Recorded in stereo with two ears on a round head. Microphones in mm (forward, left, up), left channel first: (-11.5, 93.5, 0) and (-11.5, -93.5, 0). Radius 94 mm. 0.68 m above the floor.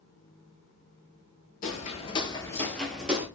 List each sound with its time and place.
1.6 s footsteps: 40° left (ahead or behind), 0.9 m; by 3.3 s 10° right (ahead or behind), 1.0 m